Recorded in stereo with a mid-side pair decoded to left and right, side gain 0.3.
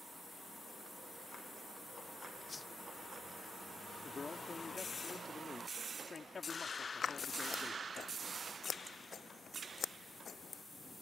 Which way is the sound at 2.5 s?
40° left.